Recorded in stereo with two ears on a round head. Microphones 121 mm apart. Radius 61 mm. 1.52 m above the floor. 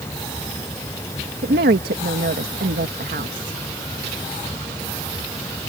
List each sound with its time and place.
1.4 s a woman speaking: 75° right (ahead or behind)